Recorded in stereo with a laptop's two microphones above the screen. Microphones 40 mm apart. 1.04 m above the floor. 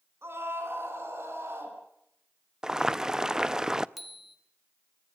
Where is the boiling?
15° right (ahead or behind), 0.7 m.